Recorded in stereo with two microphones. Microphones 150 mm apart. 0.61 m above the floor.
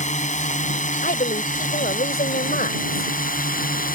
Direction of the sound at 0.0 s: 55° left (ahead or behind).